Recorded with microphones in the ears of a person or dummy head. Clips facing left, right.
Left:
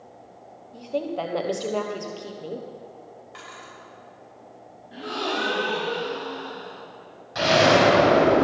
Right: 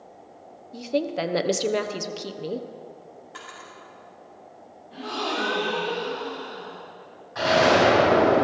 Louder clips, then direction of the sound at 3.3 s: Even; 10° right (ahead or behind).